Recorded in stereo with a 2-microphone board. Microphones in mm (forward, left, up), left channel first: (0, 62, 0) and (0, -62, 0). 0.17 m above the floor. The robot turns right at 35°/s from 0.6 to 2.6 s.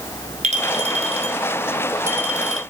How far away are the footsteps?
I don't hear footsteps.